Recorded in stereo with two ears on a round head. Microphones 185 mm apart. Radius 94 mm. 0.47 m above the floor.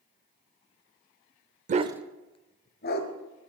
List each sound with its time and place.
1.7 s a dog barking: 40° right (ahead or behind), 0.6 m; by 3.1 s 55° left (ahead or behind), 1.3 m